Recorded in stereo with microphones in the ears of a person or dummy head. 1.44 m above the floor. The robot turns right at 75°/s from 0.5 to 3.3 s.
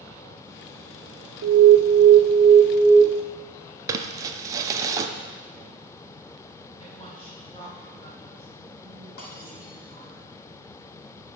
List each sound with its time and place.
1.4 s an alarm: 100° right, 0.5 m; by 3.0 s 25° left, 0.5 m
3.9 s crumpling: 15° right (ahead or behind), 0.5 m
6.8 s a woman speaking: 25° left (ahead or behind), 3.5 m
9.2 s breaking glass: 60° left (ahead or behind), 3.5 m